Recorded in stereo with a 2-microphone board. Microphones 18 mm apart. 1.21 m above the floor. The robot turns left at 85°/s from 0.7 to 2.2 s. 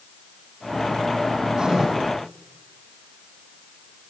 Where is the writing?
115° right, 8 m; by 1.9 s 150° right, 8 m.